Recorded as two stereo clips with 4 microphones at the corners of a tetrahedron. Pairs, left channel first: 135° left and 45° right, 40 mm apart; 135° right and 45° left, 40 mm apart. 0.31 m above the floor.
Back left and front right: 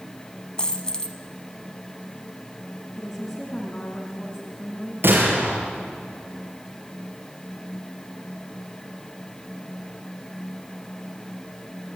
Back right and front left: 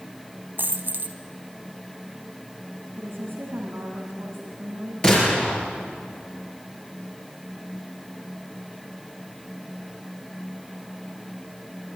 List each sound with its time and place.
0.6 s a dropped coin: 70° left, 1.3 m
3.0 s a woman speaking: 65° left, 2.5 m
5.0 s a gunshot: 70° right, 6 m